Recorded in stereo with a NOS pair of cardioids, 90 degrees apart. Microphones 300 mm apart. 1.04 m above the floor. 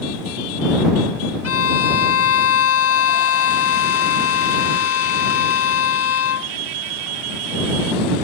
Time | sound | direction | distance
1.4 | a violin | 55° left | ?